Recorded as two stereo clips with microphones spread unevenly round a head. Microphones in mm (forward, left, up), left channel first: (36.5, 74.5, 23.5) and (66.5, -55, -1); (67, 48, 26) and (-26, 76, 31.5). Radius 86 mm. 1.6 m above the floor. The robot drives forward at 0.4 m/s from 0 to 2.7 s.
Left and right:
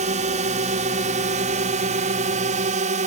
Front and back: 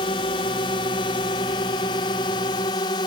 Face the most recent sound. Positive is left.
turn(degrees=-65)